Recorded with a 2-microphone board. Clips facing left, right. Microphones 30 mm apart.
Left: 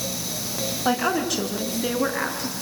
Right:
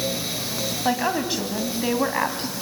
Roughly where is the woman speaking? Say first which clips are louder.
Left 1 dB; centre.